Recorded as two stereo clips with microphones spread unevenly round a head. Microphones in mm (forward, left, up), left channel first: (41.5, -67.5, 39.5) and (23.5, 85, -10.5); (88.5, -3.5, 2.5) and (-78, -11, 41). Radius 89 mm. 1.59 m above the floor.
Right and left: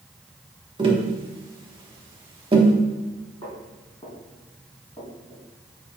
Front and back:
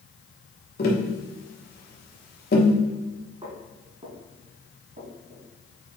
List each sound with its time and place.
0.8 s tapping: 30° left, 1.3 m
3.4 s footsteps: 135° right, 2.5 m; by 5.4 s 150° right, 3.5 m